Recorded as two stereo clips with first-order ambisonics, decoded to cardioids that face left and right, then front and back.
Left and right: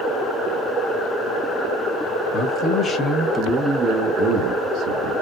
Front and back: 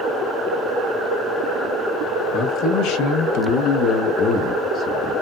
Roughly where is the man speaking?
Ahead left.